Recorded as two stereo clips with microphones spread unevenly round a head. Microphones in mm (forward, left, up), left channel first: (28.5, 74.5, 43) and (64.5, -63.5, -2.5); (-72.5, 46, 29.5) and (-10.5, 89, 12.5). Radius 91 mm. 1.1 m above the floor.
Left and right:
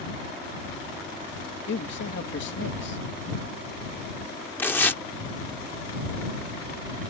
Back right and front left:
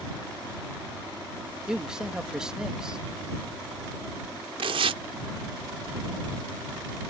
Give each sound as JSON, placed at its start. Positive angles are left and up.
{"t": 1.7, "sound": "a man speaking", "azimuth_deg": 115}
{"t": 4.6, "sound": "tearing paper", "azimuth_deg": 30}